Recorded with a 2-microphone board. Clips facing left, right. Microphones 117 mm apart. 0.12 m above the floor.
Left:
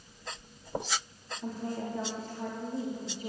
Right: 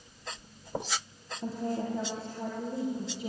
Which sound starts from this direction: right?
A woman speaking, at 1.4 s.